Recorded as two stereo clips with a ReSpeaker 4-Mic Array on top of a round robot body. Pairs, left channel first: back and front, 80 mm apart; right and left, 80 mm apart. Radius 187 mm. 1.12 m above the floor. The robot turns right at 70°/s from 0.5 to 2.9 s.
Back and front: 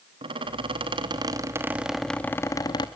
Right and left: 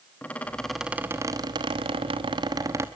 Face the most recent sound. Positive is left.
turn(degrees=155)